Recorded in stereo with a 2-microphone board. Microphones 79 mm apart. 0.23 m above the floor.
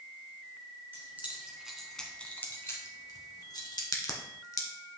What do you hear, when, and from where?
0.9 s keys jangling: 25° right (ahead or behind), 2 m; by 3.8 s 65° left (ahead or behind), 2.5 m
3.9 s a crack: 45° left (ahead or behind), 1.5 m